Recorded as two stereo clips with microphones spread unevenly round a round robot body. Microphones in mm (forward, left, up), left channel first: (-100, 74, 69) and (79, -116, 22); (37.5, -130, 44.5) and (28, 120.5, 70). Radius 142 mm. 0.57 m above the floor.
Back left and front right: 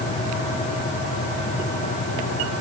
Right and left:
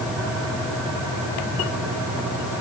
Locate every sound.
Only background noise.